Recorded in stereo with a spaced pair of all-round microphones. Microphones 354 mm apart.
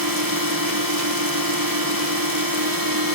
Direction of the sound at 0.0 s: 75° right (ahead or behind).